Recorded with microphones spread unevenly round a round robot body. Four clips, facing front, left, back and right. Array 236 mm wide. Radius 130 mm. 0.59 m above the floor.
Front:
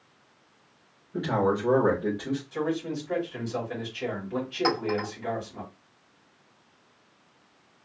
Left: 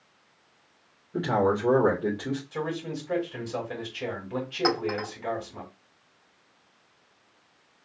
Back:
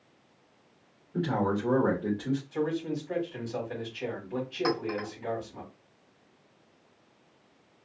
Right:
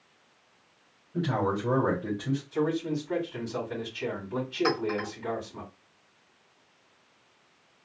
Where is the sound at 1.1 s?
70° left, 2.5 m.